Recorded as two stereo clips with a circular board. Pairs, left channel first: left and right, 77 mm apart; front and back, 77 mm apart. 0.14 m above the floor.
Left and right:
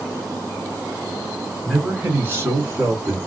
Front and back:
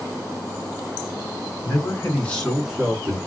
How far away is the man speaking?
About 1.5 m.